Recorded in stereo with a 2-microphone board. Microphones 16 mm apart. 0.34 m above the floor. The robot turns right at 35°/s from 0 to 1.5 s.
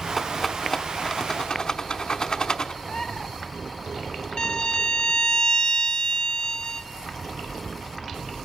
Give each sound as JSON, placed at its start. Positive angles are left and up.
{"t": 0.2, "sound": "a rattle", "side_deg": 10, "distance_m": 0.9}
{"t": 2.8, "sound": "a bird", "side_deg": 30, "distance_m": 0.8}
{"t": 4.4, "sound": "a violin", "side_deg": 55, "distance_m": 0.8}